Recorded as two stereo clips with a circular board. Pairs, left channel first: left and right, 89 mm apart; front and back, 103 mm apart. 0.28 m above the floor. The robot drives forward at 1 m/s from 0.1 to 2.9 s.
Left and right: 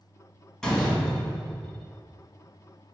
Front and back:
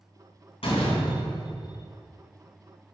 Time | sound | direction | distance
0.6 | a door slam | 10° left | 2 m